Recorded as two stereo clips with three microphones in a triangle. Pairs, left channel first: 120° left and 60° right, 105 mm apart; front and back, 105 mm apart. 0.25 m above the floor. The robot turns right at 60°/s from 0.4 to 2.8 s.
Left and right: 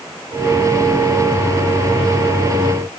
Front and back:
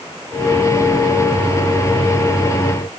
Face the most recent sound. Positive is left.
No sound to turn to.